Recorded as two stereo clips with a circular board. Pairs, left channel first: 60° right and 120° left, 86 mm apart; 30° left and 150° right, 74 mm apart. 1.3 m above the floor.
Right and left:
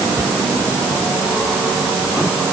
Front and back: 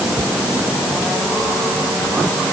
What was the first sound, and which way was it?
Only background noise.